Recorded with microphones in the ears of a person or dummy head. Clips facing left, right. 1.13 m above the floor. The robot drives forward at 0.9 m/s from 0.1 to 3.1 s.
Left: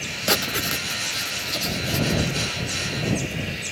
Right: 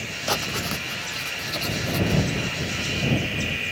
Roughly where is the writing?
Left.